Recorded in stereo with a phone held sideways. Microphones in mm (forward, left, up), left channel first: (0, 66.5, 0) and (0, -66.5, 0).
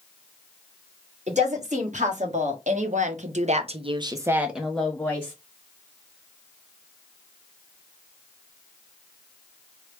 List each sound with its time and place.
1.3 s a woman speaking: 60° right (ahead or behind), 1.7 m; by 5.3 s 20° left (ahead or behind), 0.9 m